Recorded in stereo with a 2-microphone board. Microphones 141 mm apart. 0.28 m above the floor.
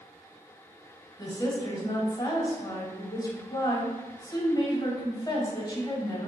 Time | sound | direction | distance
1.2 | a woman speaking | 30° left (ahead or behind) | 1.2 m